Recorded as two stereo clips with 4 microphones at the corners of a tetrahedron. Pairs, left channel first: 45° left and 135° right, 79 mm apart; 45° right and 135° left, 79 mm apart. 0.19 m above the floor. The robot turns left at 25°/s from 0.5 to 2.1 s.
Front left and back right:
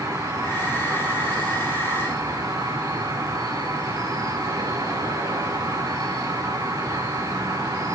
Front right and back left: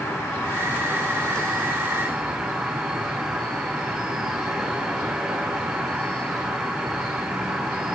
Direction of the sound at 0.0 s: 105° right.